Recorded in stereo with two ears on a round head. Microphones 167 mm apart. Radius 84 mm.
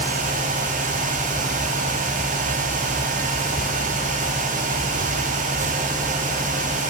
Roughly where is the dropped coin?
No dropped coin in this recording.